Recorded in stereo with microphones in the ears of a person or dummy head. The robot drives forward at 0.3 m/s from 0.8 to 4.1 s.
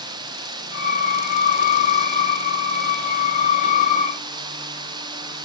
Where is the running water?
25° right (ahead or behind).